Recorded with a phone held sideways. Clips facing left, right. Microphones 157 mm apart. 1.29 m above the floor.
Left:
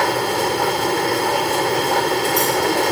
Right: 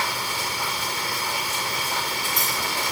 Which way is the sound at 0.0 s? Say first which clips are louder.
Left 12 dB; 70° left (ahead or behind).